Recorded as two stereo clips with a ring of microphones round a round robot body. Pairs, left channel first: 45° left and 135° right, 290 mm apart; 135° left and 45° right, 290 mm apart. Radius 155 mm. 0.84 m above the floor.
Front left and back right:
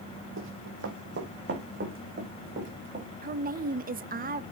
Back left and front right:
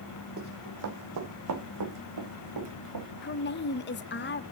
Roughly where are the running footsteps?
Right.